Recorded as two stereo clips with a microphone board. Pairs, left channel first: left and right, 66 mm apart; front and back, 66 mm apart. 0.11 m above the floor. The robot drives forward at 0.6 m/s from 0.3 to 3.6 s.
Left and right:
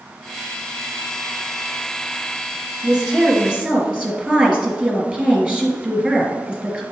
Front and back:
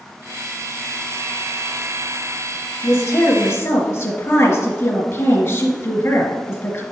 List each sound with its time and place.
2.8 s a woman speaking: 20° right, 2 m; by 6.8 s 25° right, 1.8 m